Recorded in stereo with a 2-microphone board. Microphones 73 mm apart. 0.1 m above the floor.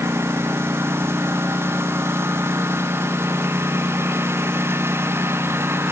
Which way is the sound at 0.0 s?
35° right (ahead or behind).